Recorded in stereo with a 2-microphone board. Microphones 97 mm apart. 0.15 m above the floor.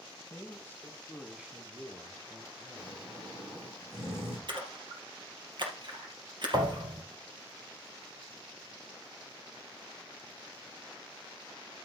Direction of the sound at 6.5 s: 50° right (ahead or behind).